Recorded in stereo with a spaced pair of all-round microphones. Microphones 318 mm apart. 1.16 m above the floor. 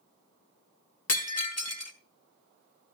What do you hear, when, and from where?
1.1 s breaking glass: 50° left (ahead or behind), 1.0 m